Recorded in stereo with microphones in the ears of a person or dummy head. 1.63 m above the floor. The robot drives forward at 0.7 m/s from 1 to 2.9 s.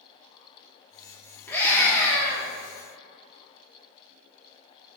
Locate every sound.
1.5 s a scream: 10° left (ahead or behind), 3.5 m; by 2.5 s 15° left (ahead or behind), 3 m